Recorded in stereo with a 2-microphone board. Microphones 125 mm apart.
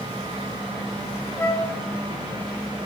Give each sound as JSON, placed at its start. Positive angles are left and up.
{"t": 1.4, "sound": "a flute", "side_deg": 20, "distance_m": 0.8}